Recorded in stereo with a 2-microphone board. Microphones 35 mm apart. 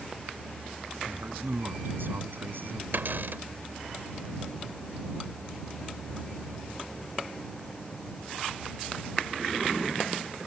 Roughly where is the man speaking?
Right.